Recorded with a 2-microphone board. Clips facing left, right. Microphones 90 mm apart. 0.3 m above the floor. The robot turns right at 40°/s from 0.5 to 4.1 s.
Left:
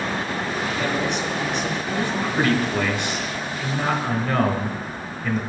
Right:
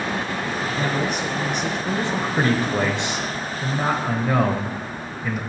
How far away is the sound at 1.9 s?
About 1.1 m.